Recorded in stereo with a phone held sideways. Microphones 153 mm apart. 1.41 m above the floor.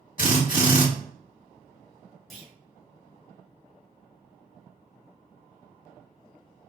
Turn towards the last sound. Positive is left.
turn(degrees=0)  # may be behind; listen again after turning